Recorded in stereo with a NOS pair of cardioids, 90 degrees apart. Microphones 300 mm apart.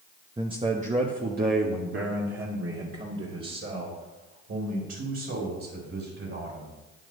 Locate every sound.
0.4 s a man speaking: 10° right, 1.0 m; by 6.7 s 55° right, 5.5 m